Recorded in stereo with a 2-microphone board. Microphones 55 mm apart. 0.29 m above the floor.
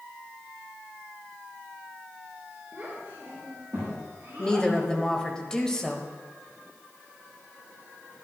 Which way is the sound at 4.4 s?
15° left (ahead or behind).